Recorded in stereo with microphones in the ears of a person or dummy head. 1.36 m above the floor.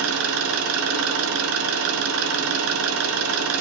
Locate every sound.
0.0 s an engine running: 80° right, 7 m